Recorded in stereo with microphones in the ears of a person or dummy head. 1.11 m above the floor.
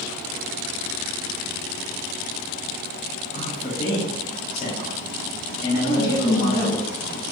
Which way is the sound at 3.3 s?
35° left (ahead or behind).